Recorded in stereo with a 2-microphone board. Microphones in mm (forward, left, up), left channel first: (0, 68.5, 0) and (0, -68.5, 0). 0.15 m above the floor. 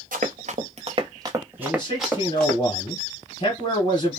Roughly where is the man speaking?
Left.